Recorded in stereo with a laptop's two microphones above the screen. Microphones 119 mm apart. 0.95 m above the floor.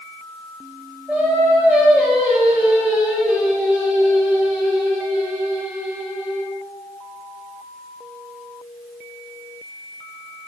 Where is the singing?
15° right (ahead or behind), 6 m.